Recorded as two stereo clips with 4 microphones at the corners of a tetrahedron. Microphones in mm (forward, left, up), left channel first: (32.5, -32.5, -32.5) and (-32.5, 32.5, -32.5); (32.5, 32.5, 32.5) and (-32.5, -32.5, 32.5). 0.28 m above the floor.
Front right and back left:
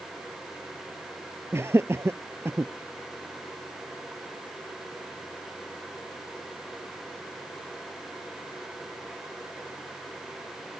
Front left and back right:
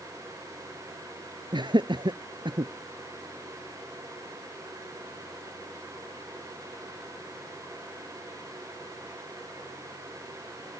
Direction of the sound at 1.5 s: 165° right.